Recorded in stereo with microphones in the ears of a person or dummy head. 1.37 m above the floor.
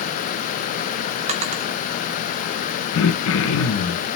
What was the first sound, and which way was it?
A drawer, 45° right (ahead or behind).